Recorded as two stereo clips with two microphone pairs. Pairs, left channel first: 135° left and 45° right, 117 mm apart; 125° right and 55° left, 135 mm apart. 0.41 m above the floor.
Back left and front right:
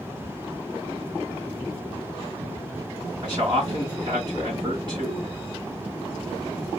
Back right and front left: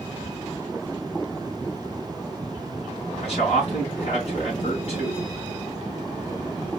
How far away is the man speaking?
About 4 m.